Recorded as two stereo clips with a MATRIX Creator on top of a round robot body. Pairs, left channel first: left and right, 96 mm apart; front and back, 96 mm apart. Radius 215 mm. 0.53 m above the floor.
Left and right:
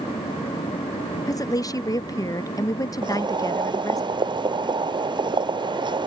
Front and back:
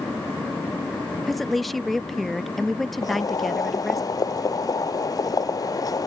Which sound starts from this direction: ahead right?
Boiling, at 3.0 s.